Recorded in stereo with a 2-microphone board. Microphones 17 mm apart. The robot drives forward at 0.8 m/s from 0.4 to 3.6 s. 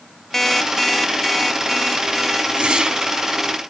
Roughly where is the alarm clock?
Left.